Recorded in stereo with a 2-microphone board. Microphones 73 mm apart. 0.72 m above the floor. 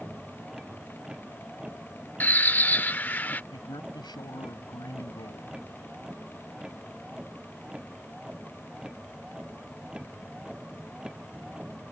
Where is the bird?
25° left (ahead or behind).